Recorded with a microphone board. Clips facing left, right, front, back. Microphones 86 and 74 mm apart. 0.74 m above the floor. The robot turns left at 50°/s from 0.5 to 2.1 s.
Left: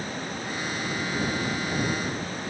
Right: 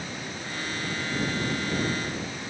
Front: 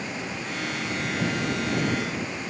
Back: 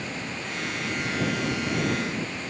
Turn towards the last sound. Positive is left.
No sound to turn to.